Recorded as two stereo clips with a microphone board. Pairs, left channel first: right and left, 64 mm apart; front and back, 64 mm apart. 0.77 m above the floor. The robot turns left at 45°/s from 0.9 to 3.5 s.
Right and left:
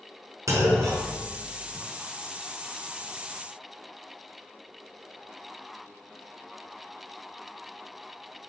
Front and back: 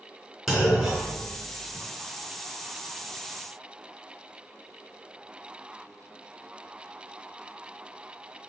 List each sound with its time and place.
0.5 s a clunk: 95° left, 1.7 m; by 1.9 s 50° left, 1.7 m